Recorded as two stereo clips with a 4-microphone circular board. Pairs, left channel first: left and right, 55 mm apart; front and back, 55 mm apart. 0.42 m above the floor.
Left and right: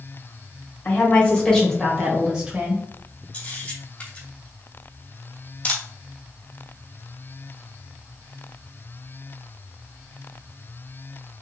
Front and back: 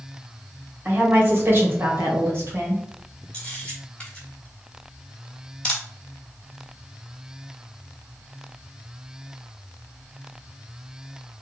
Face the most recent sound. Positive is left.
turn(degrees=55)